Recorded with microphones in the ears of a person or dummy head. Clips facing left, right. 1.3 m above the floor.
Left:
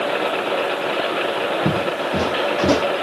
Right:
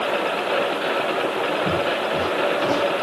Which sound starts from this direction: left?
Footsteps, at 1.6 s.